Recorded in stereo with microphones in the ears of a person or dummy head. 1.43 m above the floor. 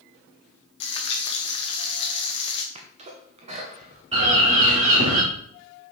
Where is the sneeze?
35° right (ahead or behind), 1.0 m.